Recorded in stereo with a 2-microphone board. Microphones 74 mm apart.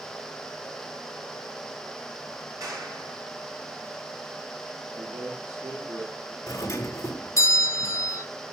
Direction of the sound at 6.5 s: 40° left (ahead or behind).